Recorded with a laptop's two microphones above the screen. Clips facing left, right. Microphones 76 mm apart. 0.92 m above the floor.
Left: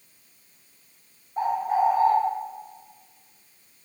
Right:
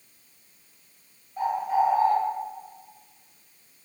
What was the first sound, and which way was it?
A bird, 45° left (ahead or behind).